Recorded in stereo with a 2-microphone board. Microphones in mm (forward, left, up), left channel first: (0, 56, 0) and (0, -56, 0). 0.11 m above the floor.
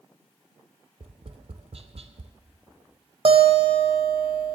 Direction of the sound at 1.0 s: 65° right (ahead or behind).